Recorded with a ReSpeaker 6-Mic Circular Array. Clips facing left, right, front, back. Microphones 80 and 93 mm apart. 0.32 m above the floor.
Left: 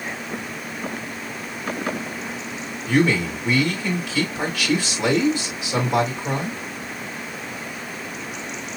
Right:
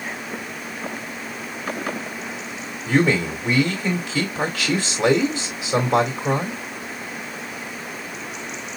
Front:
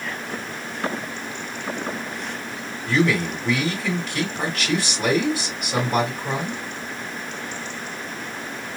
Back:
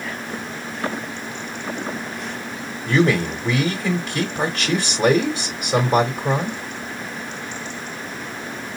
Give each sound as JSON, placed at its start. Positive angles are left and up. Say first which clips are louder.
{"t": 2.9, "sound": "a man speaking", "louder": "even, back 3 dB", "azimuth_deg": -130, "distance_m": 1.8}